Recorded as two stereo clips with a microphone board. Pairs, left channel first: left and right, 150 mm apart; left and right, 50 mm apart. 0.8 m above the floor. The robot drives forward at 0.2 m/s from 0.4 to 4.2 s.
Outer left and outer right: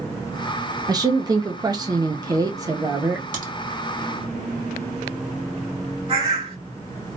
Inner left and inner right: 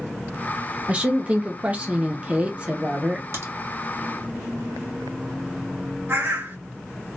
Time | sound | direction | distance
0.9 | a woman speaking | 25° right (ahead or behind) | 0.6 m
3.3 | a crack | 60° right (ahead or behind) | 2.0 m
6.1 | a bird | 45° right (ahead or behind) | 1.9 m